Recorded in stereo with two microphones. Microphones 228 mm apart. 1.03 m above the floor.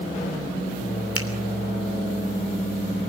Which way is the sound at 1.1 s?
75° left (ahead or behind).